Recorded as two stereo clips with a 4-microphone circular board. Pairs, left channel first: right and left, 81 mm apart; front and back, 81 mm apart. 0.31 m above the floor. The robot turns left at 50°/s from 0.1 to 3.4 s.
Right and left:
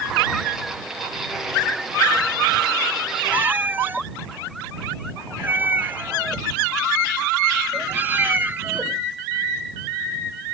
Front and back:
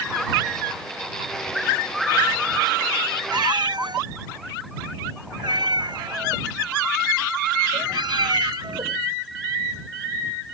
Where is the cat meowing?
160° left; by 9.0 s 155° left.